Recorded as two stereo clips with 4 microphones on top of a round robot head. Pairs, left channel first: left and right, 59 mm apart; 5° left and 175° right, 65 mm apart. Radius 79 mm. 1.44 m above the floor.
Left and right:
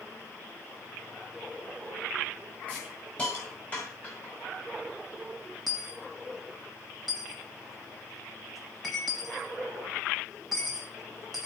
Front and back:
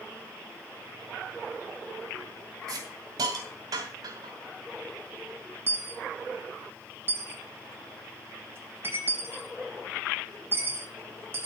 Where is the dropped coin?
Straight behind, 0.9 m.